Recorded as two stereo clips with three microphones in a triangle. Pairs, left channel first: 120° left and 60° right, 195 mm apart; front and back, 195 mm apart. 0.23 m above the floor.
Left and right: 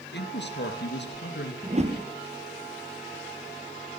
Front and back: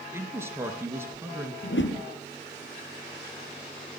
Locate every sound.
0.1 s a man speaking: 105° left, 4 m
1.6 s a whoosh: 5° right, 3 m